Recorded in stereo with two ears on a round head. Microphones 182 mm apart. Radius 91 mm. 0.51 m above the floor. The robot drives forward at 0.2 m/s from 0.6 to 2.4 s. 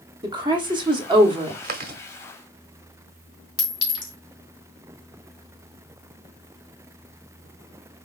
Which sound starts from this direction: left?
A clink, at 3.6 s.